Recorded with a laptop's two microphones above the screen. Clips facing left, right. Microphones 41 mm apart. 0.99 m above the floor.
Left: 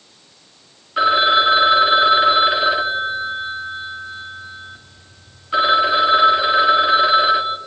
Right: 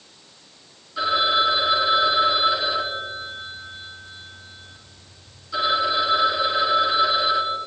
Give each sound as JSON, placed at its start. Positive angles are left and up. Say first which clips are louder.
{"t": 1.0, "sound": "a phone ringing", "louder": "left 6 dB", "side_deg": 50, "distance_m": 1.2}